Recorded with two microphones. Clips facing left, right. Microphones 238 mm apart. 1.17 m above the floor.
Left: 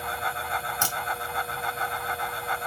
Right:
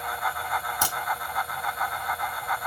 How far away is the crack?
About 1.9 m.